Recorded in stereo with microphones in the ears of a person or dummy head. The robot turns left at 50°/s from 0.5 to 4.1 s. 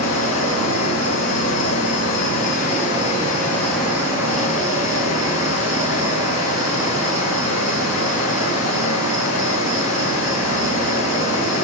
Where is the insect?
160° left, 5 m; by 11.6 s 20° right, 5 m.